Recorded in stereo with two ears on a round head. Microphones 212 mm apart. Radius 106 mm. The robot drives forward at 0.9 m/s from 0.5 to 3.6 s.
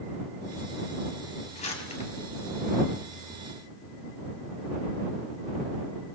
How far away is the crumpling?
About 4.5 m.